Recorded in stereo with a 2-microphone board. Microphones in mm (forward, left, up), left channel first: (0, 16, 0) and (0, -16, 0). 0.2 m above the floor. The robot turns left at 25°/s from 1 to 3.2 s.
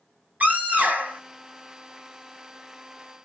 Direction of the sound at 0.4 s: 60° right (ahead or behind).